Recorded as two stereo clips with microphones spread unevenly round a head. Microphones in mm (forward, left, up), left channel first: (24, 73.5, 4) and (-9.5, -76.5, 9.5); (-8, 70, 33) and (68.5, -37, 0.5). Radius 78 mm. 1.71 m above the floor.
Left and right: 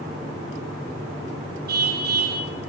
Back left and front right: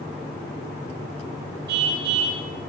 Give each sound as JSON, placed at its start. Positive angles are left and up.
{"t": 1.7, "sound": "a car horn", "azimuth_deg": -80, "distance_m": 5.0}